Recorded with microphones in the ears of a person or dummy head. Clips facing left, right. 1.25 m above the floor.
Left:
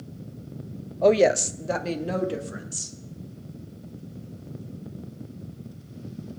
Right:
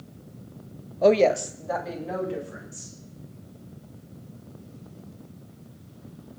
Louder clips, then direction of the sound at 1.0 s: Even; 15° right (ahead or behind).